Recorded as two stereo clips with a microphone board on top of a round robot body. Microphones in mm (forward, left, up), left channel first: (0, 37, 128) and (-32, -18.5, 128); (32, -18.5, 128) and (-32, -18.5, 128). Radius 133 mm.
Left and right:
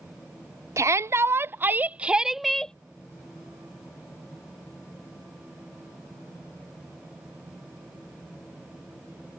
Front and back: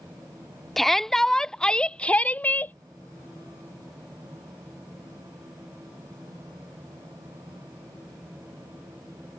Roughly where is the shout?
Right.